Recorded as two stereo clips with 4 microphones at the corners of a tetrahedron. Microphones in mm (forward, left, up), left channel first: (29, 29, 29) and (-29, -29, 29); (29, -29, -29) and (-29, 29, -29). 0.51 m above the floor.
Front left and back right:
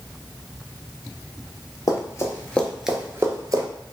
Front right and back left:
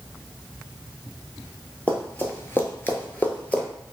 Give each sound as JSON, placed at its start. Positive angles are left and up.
{"t": 1.9, "sound": "running footsteps", "azimuth_deg": 20, "distance_m": 0.8}